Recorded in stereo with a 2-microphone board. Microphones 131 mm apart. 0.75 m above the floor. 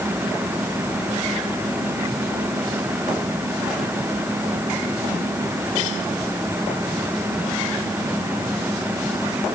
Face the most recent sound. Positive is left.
No sound to turn to.